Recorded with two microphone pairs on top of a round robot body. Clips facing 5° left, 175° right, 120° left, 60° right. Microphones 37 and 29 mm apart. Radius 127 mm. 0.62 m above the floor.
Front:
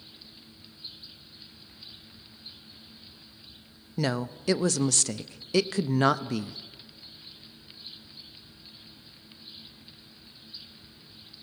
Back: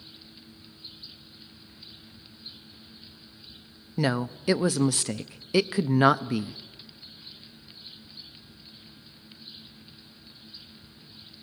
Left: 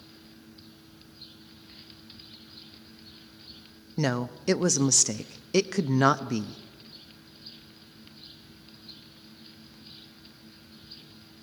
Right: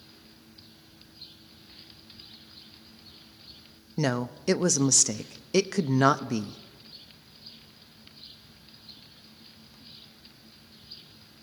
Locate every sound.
4.0 s a woman speaking: 145° right, 0.6 m